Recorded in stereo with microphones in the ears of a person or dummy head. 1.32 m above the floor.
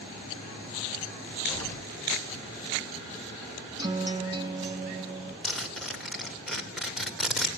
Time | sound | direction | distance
1.5 | an explosion | 10° left (ahead or behind) | 2.5 m
3.8 | a guitar | 30° right (ahead or behind) | 2.5 m
5.4 | a zipper | 5° right (ahead or behind) | 2.5 m